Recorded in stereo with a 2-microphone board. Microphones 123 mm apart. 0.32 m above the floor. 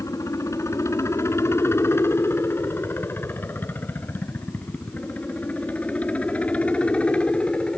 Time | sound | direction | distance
0.0 | a helicopter | 25° left (ahead or behind) | ?